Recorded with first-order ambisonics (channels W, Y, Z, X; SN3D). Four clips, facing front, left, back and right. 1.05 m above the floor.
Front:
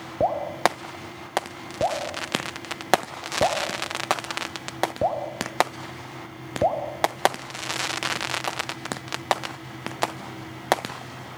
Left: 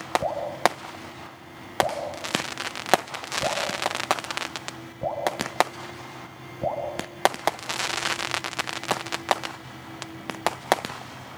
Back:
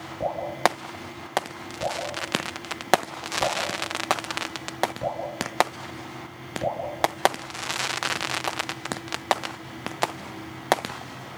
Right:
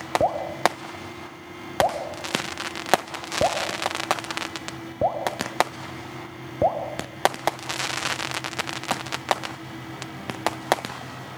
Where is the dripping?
50° right, 3.5 m.